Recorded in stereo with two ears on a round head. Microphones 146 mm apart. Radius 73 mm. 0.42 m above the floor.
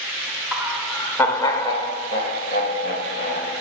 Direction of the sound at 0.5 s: 10° right (ahead or behind).